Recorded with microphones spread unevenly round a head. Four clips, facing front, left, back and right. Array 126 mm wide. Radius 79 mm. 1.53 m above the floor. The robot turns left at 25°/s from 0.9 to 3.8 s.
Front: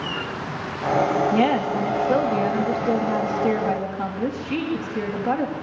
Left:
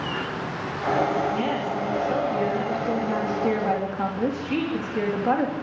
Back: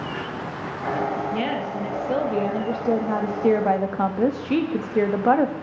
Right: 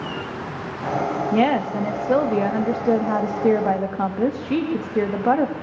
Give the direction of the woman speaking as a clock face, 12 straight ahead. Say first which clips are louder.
Right 6 dB, front 6 dB; 3 o'clock.